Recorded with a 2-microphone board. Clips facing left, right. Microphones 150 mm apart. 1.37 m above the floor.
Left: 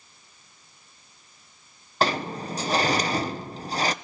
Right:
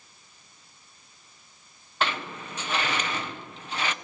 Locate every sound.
2.0 s a sliding door: 35° left (ahead or behind), 0.9 m